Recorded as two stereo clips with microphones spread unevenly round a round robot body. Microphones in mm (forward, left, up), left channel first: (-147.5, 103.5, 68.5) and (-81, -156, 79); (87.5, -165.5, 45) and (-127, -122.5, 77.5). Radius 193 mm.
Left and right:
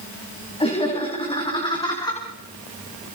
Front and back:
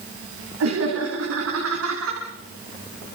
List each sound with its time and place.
0.6 s laughter: 175° left, 6.5 m; by 2.2 s straight behind, 5.5 m